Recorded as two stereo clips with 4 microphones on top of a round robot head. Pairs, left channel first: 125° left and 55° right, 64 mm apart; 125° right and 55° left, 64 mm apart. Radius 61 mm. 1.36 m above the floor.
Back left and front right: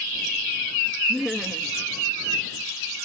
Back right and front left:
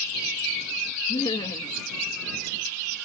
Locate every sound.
1.1 s laughter: 140° right